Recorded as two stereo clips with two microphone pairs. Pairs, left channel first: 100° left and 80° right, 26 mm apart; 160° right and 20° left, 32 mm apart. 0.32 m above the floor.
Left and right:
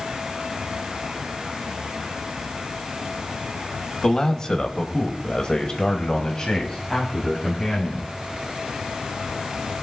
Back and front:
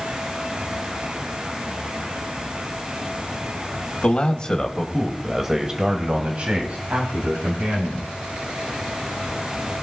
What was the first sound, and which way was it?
A man speaking, 160° left.